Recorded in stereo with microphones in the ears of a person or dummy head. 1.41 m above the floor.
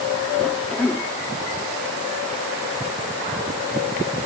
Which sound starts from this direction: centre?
A cough, at 0.4 s.